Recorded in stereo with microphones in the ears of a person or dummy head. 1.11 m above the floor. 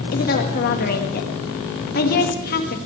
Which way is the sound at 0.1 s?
50° left (ahead or behind).